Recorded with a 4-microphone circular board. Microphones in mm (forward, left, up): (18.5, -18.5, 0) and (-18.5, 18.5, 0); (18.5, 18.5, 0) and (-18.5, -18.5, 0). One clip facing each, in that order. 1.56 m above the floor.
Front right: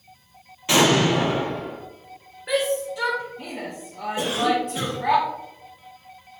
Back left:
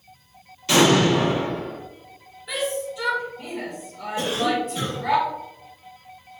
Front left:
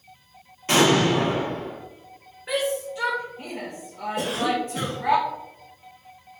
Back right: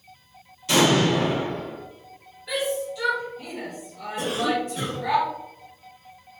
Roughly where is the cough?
Ahead left.